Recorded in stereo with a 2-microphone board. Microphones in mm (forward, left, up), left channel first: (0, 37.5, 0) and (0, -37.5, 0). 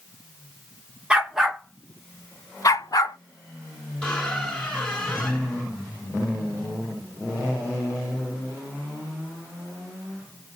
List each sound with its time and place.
1.1 s a dog barking: 10° right (ahead or behind), 1.0 m; by 3.2 s 60° left (ahead or behind), 0.8 m
4.0 s a squeak: 15° left (ahead or behind), 1.8 m